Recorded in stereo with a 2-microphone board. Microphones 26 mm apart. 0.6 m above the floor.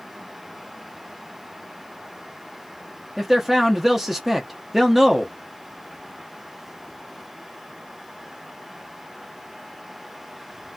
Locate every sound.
3.2 s a man speaking: 5° right (ahead or behind), 0.5 m